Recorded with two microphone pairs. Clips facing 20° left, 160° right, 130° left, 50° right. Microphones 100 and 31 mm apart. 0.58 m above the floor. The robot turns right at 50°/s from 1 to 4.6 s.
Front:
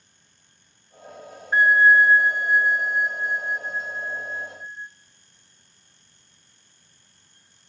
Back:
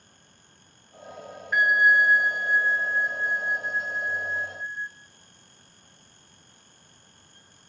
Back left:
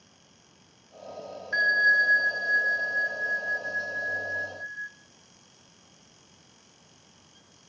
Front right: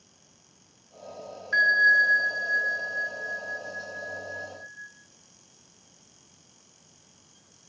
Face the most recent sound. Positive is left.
turn(degrees=165)